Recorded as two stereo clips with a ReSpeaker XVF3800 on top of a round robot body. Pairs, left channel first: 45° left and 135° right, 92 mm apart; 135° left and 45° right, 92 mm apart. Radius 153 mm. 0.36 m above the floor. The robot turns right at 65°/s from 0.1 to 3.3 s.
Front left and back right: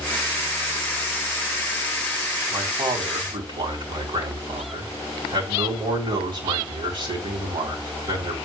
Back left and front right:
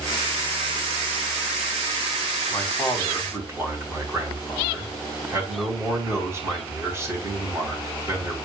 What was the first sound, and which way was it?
A man speaking, 160° right.